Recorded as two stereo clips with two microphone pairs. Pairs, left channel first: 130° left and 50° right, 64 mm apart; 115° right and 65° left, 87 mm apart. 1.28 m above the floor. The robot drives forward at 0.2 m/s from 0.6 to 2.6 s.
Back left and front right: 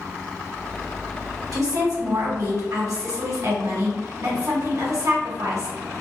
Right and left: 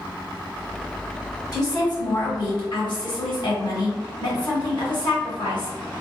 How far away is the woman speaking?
About 1.3 m.